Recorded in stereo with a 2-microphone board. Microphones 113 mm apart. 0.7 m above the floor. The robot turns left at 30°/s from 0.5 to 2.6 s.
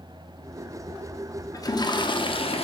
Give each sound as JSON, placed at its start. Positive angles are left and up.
{"t": 1.5, "sound": "a toilet flushing", "azimuth_deg": 145, "distance_m": 0.6}